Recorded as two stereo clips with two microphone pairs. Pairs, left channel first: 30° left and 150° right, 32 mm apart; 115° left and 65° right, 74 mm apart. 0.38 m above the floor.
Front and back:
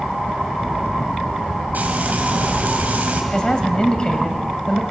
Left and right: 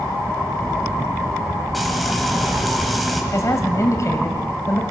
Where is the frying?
155° right, 2.5 m.